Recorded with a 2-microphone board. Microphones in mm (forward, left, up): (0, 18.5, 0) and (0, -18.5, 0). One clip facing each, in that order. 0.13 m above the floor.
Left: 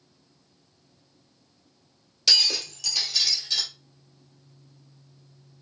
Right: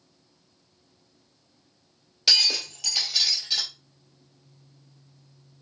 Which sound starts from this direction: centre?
Breaking glass, at 2.3 s.